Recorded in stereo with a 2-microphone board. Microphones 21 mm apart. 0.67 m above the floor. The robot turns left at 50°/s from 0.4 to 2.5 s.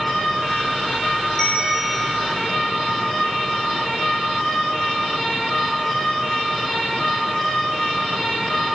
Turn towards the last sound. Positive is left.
turn(degrees=-35)